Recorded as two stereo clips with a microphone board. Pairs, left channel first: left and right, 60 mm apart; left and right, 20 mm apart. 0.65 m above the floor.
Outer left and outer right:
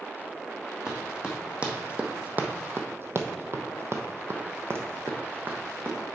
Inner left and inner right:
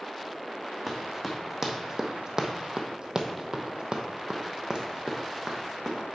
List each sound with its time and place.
0.9 s running footsteps: 15° right (ahead or behind), 1.6 m; by 6.0 s 30° right (ahead or behind), 1.7 m